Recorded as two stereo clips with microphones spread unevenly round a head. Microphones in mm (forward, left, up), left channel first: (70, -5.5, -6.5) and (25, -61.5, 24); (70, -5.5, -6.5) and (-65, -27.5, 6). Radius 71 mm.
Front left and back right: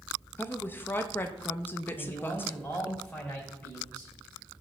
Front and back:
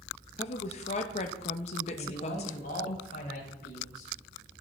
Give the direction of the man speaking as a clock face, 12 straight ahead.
1 o'clock.